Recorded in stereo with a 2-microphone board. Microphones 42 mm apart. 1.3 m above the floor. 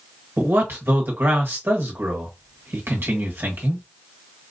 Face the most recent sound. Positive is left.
turn(degrees=-55)  # may be behind; listen again after turning